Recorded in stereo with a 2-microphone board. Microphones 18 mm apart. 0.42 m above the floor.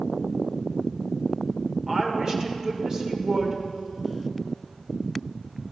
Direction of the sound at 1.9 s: 35° right (ahead or behind).